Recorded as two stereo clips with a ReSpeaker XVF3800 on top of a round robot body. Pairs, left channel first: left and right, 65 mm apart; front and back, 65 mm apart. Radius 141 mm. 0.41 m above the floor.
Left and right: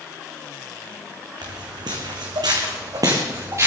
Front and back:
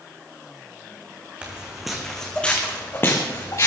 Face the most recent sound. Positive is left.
turn(degrees=-40)